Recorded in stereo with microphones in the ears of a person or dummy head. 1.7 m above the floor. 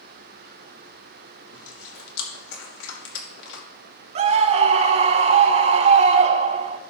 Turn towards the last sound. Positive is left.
turn(degrees=-40)  # may be behind; listen again after turning